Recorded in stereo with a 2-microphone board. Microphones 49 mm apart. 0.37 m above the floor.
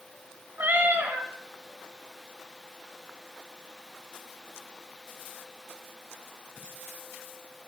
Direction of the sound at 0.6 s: 45° right (ahead or behind).